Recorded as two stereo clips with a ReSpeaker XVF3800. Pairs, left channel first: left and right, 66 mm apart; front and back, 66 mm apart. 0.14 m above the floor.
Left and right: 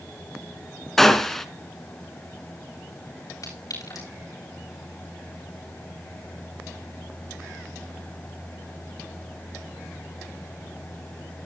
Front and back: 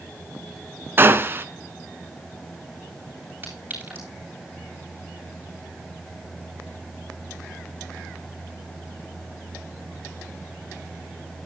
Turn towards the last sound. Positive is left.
turn(degrees=120)